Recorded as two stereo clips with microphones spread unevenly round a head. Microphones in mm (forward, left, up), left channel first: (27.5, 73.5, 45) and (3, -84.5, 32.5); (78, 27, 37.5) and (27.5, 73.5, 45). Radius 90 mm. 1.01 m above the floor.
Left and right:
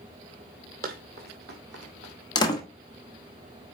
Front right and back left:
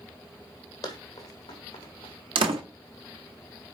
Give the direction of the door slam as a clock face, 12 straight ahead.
7 o'clock.